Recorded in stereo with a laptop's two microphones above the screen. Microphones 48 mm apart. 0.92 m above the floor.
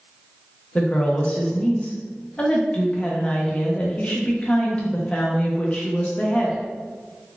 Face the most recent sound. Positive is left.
turn(degrees=25)  # may be behind; listen again after turning